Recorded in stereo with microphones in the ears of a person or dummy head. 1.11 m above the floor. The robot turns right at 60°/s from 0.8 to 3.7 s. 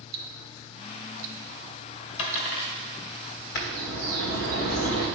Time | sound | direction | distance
0.1 | ticking | 65° right (ahead or behind) | 0.7 m
2.2 | a dropped coin | 30° left (ahead or behind) | 2.5 m
3.5 | a bird | 60° left (ahead or behind) | 1.3 m